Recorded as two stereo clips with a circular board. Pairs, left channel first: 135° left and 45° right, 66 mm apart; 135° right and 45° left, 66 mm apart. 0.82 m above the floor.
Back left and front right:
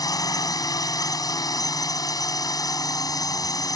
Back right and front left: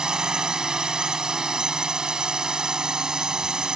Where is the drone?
125° left.